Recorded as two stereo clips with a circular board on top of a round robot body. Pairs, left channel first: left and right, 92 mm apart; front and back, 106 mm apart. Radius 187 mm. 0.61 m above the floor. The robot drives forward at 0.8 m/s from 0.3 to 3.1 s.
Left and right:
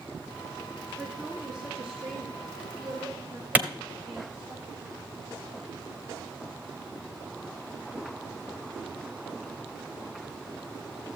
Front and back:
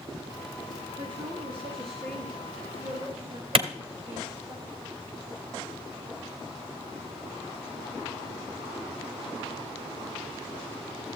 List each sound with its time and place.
1.0 s a woman speaking: 165° right, 1.3 m; by 4.5 s 175° right, 3 m
3.5 s a clap: 160° right, 1.0 m